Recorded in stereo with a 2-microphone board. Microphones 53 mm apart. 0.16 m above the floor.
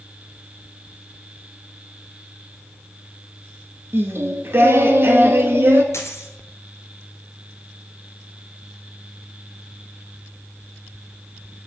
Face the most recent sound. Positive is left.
turn(degrees=65)  # may be behind; listen again after turning